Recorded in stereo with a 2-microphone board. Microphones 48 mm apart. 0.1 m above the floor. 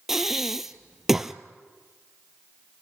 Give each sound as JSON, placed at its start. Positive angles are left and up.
{"t": 0.1, "sound": "breathing", "side_deg": -5, "distance_m": 0.7}